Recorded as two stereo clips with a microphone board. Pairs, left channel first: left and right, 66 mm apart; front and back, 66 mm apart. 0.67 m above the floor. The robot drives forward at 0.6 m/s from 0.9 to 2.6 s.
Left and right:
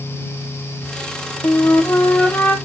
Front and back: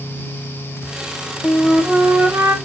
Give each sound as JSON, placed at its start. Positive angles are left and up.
{"t": 1.4, "sound": "a flute", "azimuth_deg": 75, "distance_m": 0.5}